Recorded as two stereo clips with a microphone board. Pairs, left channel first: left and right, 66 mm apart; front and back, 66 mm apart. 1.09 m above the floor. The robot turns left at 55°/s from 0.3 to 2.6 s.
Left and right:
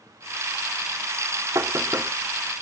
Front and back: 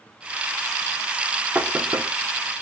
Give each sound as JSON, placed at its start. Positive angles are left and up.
{"t": 1.6, "sound": "knocking", "azimuth_deg": -120, "distance_m": 2.0}